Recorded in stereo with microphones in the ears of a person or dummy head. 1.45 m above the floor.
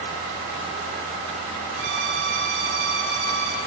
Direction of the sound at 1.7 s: 80° right.